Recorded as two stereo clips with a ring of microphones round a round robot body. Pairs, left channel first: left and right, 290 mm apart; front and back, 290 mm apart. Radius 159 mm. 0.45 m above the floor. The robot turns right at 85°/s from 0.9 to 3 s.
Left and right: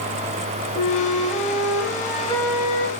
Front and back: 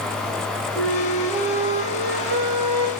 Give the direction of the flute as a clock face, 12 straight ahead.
10 o'clock.